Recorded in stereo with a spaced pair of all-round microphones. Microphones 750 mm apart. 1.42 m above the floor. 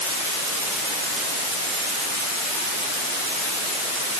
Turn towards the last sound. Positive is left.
No sound to turn to.